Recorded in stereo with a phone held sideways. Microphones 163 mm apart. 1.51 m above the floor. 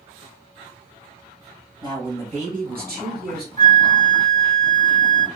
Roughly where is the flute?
Centre.